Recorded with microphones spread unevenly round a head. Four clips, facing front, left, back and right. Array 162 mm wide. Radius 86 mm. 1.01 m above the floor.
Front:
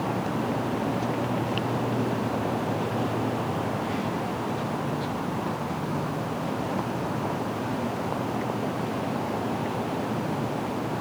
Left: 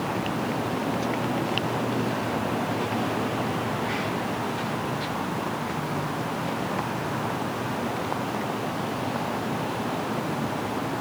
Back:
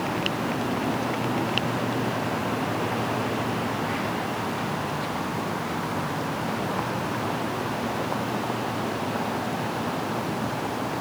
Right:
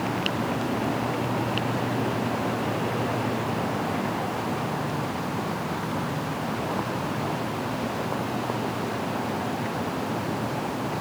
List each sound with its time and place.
Only background noise.